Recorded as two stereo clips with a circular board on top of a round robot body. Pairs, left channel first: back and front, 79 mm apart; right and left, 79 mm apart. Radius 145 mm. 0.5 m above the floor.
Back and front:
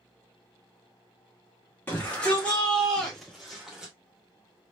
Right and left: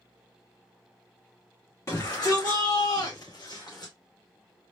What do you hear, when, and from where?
1.9 s a shout: 120° right, 2 m; by 3.9 s 80° right, 2.5 m